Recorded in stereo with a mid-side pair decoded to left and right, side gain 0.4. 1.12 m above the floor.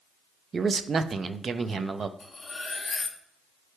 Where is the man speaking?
45° right, 0.6 m.